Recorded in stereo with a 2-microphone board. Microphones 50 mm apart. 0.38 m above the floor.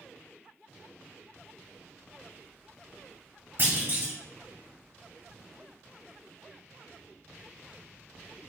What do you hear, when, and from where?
3.6 s a clunk: 50° right (ahead or behind), 1.3 m